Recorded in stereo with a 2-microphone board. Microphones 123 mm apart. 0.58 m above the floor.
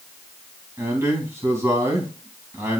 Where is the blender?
No blender in this recording.